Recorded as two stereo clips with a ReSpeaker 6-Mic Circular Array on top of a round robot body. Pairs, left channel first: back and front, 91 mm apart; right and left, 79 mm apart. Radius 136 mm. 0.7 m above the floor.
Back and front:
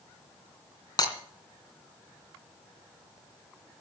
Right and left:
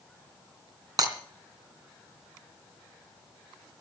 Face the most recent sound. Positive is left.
turn(degrees=130)